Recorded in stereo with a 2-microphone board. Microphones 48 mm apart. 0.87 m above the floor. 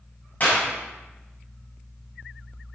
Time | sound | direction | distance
0.4 | a clap | 40° left (ahead or behind) | 6.5 m